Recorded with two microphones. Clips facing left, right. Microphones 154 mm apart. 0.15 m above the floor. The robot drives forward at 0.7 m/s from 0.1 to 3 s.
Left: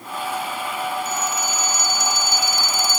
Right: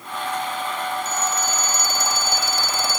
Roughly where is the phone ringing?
Right.